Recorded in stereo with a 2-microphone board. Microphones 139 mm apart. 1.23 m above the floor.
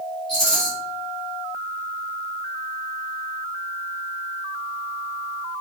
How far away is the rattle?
About 1.2 m.